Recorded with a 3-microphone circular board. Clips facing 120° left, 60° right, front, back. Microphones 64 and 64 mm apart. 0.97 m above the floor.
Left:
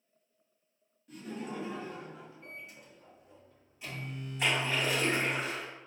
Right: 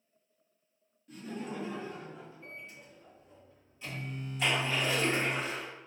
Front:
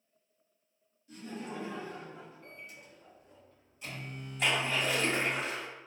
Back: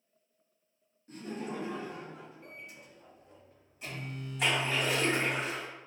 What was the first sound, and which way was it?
Laughter, 150° right.